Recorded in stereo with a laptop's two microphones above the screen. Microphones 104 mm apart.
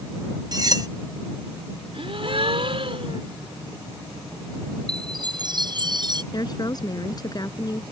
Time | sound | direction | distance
0.5 | cutlery clinking | 40° right (ahead or behind) | ?
1.9 | a gasp | 70° right (ahead or behind) | ?
4.9 | a chime | 45° right (ahead or behind) | ?
6.3 | a woman speaking | 40° left (ahead or behind) | ?